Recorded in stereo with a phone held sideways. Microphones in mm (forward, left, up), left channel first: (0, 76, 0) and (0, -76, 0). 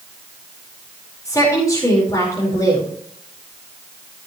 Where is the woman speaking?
25° left (ahead or behind), 4.5 m.